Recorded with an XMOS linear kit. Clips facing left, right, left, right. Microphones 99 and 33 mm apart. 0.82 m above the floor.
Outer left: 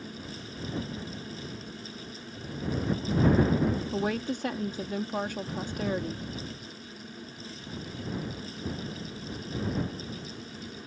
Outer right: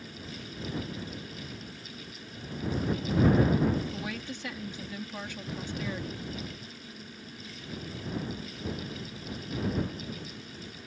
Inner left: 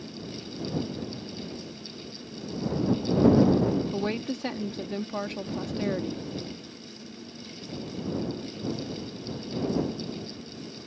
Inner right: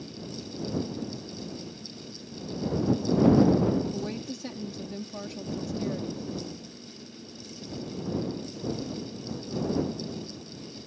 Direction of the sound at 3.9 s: 45° left (ahead or behind).